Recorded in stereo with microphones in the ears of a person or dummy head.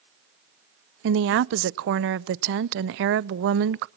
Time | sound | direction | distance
1.0 | a woman speaking | 60° right (ahead or behind) | 0.6 m